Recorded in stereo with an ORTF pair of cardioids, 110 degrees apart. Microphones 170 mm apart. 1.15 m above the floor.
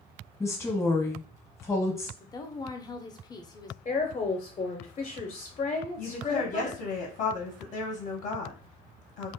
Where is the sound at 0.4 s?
15° left, 0.9 m.